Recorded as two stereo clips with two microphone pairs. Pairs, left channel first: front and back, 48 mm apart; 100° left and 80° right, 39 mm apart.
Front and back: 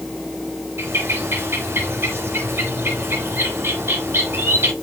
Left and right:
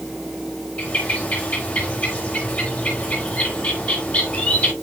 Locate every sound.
0.8 s a bird: 145° left, 4 m